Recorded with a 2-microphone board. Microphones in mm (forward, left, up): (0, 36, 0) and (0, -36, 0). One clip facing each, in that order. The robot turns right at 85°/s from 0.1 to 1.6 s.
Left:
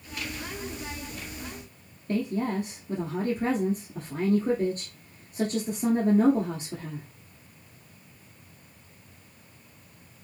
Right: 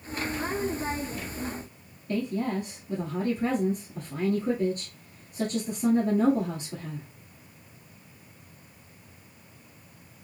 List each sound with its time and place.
2.1 s a woman speaking: 45° left (ahead or behind), 1.5 m